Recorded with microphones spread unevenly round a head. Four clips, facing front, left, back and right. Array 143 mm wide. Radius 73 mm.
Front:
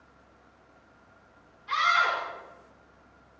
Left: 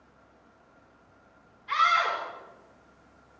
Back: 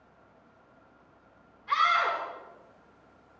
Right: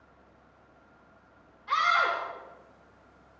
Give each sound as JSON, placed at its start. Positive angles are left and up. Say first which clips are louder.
{"t": 1.7, "sound": "a scream", "louder": "left 1 dB, even", "azimuth_deg": -80, "distance_m": 5.5}